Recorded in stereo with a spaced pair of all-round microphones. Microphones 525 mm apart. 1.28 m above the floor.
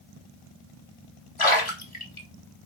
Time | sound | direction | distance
1.4 | a splash | 65° left (ahead or behind) | 2 m